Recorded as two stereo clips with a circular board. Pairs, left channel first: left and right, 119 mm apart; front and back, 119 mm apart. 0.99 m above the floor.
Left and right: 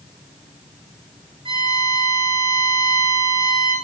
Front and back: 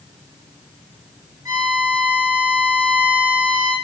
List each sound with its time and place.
1.4 s a violin: 125° right, 1.9 m